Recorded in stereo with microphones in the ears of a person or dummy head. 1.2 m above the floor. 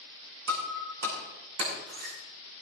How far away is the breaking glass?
About 7 m.